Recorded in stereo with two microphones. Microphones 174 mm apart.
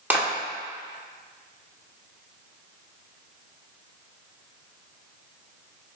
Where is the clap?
10° right (ahead or behind), 1.9 m.